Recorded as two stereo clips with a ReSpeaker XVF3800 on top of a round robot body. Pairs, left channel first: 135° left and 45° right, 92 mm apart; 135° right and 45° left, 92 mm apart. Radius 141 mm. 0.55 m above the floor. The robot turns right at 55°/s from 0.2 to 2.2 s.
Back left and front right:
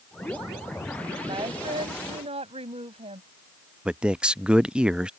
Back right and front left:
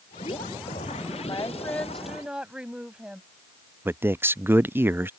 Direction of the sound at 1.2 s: 90° right.